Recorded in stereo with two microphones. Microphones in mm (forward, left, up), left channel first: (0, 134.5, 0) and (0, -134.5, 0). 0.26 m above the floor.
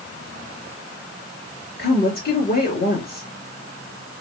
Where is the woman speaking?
40° left (ahead or behind), 3 m.